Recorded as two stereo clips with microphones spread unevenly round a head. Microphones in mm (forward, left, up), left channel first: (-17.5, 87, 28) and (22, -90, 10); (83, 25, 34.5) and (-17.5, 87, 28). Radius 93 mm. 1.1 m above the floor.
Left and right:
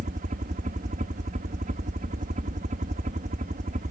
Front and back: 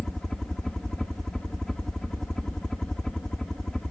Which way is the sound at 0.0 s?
120° right.